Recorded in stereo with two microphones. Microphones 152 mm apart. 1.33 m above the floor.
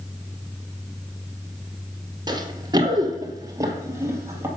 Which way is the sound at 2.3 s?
30° right (ahead or behind).